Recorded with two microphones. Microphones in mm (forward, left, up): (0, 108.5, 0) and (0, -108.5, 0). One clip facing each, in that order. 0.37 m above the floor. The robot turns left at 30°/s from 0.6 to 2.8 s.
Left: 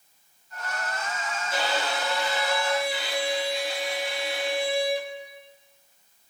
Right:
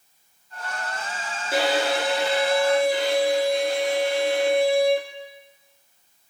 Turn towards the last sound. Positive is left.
turn(degrees=-125)